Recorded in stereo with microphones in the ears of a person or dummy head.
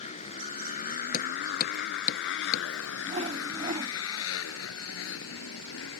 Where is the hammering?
50° left (ahead or behind).